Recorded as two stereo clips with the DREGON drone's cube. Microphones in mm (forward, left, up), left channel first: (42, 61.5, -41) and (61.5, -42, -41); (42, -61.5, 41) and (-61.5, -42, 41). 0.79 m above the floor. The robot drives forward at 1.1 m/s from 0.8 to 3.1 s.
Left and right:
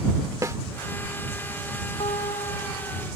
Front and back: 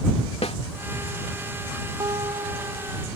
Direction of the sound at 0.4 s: 20° right.